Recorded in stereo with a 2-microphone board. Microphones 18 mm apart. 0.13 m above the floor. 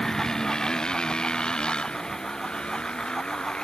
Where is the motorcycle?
40° left (ahead or behind); by 3.6 s 75° left (ahead or behind).